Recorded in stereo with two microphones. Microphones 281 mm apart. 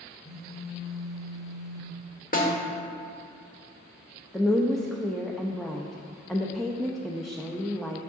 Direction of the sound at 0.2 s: Centre (ahead or behind).